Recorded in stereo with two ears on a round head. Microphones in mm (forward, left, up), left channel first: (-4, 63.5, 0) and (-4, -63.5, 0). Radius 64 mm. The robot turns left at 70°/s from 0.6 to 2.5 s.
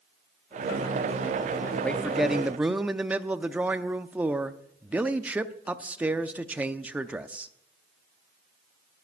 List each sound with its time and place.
1.8 s a man speaking: 10° left (ahead or behind), 0.6 m; by 7.5 s 10° right (ahead or behind), 0.6 m